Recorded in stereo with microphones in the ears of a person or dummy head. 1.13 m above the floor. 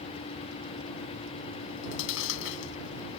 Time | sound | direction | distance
1.6 | chewing | 70° left (ahead or behind) | ?